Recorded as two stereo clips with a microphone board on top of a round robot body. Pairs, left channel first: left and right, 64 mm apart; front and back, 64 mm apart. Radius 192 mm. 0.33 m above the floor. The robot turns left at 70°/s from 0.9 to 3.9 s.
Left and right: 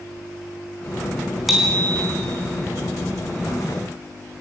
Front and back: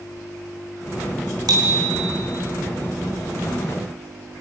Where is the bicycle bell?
175° right, 4 m; by 2.1 s 140° left, 4 m.